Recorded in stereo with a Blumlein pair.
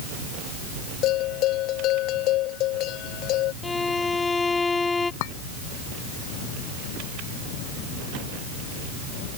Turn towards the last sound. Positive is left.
turn(degrees=50)